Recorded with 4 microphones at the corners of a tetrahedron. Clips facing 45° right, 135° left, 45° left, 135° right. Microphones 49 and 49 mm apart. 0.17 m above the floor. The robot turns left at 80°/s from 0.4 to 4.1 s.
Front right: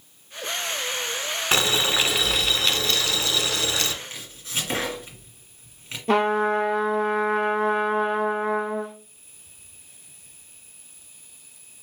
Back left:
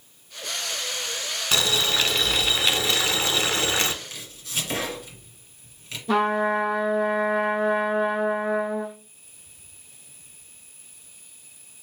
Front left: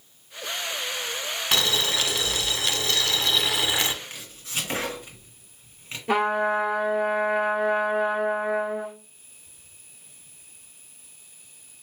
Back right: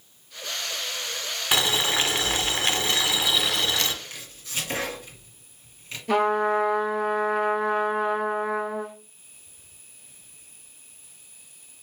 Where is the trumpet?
25° right, 1.3 m.